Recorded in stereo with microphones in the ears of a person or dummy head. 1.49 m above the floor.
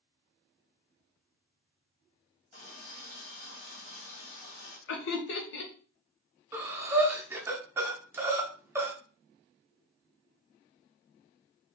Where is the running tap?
45° left (ahead or behind), 1.9 m.